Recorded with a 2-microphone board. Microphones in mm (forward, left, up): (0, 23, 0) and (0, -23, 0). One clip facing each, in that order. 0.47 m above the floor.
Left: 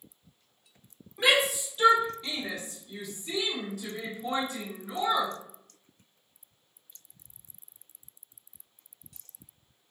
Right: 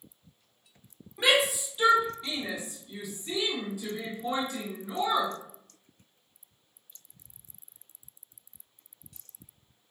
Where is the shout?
5° right (ahead or behind), 1.3 m; by 5.3 s 10° right (ahead or behind), 1.7 m.